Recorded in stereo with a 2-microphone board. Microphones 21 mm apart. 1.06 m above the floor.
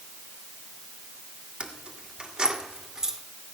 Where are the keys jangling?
65° right (ahead or behind), 2.0 m; by 3.2 s 25° right (ahead or behind), 2.5 m.